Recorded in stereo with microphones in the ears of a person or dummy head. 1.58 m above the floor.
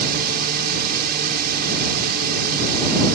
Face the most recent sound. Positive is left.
turn(degrees=-55)  # may be behind; listen again after turning